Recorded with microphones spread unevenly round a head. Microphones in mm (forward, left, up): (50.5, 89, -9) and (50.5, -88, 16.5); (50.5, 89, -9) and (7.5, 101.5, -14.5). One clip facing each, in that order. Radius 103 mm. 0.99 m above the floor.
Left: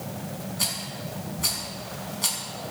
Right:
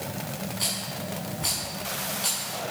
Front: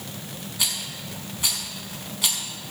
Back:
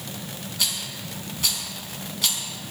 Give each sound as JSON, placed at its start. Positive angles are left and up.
{"t": 0.6, "sound": "a rattle", "azimuth_deg": 60, "distance_m": 5.0}